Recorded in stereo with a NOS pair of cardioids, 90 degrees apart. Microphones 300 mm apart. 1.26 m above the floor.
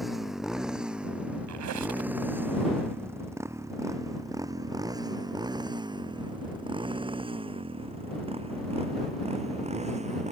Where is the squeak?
70° right.